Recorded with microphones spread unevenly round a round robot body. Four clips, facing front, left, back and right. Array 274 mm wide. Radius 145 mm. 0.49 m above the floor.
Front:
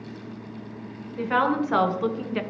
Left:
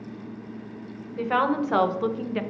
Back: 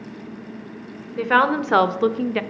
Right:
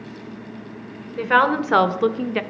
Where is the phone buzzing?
No phone buzzing in this recording.